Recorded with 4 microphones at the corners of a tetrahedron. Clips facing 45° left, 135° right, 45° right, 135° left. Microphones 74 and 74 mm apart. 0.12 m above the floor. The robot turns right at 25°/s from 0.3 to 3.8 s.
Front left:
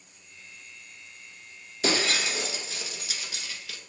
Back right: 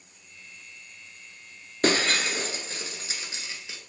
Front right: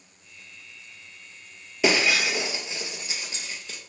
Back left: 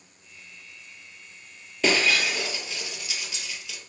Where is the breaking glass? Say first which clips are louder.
Back right 3 dB, front right 1 dB; 120° right, 1.2 m; by 3.8 s 75° right, 1.2 m.